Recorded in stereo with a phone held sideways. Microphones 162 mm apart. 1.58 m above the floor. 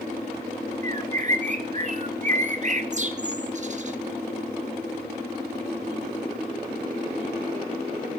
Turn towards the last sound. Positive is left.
turn(degrees=-45)  # may be behind; listen again after turning